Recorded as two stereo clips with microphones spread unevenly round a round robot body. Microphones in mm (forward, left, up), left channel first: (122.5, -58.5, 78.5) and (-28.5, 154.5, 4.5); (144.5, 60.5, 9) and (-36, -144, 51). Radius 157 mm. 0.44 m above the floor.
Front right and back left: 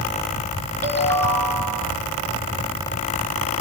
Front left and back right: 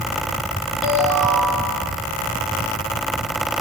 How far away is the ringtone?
About 4.5 m.